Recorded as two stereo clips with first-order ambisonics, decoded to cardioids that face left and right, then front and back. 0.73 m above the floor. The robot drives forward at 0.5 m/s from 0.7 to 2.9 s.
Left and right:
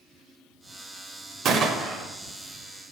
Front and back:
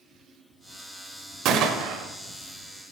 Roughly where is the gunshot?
Behind right.